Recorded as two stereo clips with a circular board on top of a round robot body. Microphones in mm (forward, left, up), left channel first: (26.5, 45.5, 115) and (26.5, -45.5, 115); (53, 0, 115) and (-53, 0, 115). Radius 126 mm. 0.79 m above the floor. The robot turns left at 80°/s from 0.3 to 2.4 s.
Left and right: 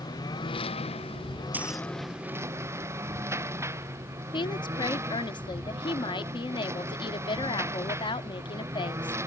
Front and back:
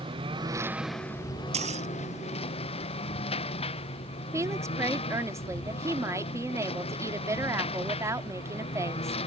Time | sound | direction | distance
0.0 | a lawn mower | 140° left | ?
1.5 | keys jangling | 160° right | ?
4.3 | a woman speaking | 120° left | ?